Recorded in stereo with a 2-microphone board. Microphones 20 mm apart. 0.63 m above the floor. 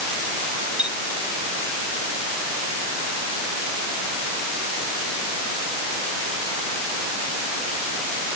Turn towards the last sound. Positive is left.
turn(degrees=-60)  # may be behind; listen again after turning